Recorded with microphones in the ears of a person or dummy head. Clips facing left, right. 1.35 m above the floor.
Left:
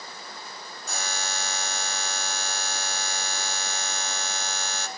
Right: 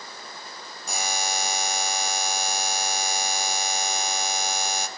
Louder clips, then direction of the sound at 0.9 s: Right 5 dB; 10° right (ahead or behind).